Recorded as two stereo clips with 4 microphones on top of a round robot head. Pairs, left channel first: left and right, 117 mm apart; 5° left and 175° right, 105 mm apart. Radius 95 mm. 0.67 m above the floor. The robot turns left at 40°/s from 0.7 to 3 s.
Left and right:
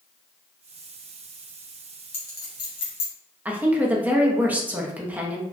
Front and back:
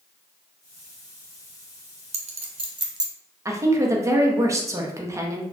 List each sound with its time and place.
2.1 s a clink: 165° left, 0.6 m; by 3.1 s 130° left, 0.6 m
3.5 s a woman speaking: 155° right, 0.6 m